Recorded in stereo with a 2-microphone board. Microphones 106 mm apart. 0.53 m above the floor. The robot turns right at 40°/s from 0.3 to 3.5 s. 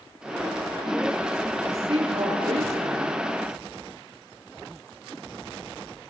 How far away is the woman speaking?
About 7 m.